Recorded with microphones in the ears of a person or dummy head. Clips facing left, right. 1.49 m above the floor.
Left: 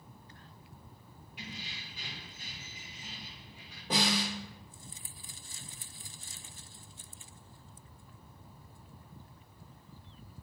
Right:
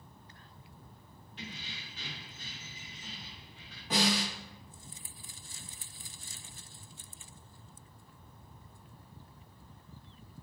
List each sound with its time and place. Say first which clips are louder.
1.4 s keys jangling: even; 5° left (ahead or behind), 0.8 m
3.9 s a snare drum: right 1 dB; 25° left (ahead or behind), 1.3 m